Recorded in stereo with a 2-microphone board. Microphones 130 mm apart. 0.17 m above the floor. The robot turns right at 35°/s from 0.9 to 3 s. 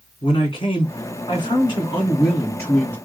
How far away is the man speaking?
About 1.9 m.